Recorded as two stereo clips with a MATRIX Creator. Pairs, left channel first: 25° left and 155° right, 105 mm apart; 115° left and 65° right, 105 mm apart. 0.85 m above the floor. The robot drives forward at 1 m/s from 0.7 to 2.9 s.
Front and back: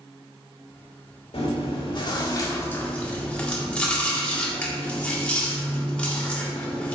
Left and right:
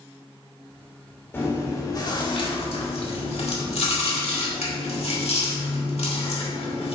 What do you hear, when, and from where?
1.3 s chewing: 45° left, 1.8 m; by 7.0 s 100° left, 1.3 m